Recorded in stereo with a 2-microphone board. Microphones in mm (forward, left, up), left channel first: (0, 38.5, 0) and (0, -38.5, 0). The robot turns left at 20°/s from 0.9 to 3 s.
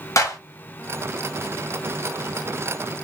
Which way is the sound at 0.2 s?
45° left (ahead or behind).